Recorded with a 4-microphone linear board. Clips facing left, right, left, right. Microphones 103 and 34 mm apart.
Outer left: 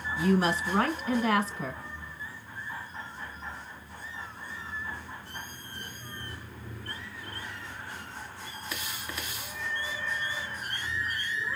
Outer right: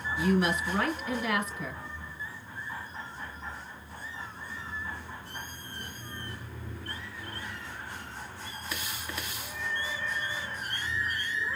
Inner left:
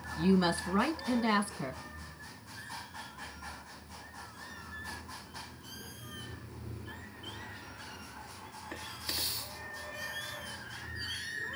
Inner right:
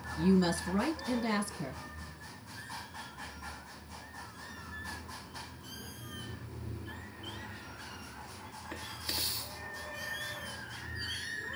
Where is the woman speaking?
35° left (ahead or behind), 1.3 m.